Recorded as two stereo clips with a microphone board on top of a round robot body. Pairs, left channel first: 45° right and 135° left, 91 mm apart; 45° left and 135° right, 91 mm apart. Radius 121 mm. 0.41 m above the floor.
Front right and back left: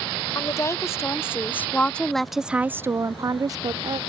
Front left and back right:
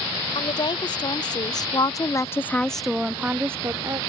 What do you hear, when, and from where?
0.3 s a woman speaking: 15° left; by 4.0 s 175° left